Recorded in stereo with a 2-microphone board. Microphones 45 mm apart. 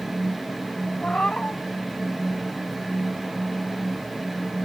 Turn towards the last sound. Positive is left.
turn(degrees=25)  # may be behind; listen again after turning